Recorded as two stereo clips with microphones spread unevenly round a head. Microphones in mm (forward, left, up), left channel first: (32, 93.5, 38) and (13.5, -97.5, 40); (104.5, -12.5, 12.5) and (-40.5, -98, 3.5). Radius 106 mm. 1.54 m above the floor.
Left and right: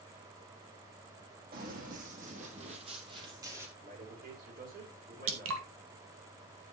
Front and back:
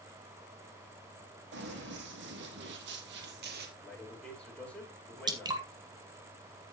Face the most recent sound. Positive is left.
turn(degrees=-80)